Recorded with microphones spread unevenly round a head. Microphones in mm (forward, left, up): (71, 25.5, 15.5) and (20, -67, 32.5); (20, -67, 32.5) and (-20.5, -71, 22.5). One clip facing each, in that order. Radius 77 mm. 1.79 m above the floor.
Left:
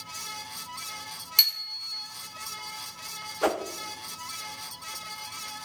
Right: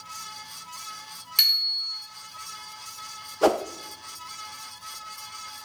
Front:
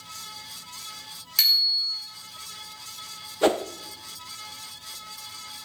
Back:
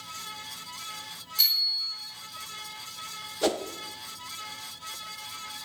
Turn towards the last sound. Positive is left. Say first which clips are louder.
# right 5 dB, front 5 dB
turn(degrees=-55)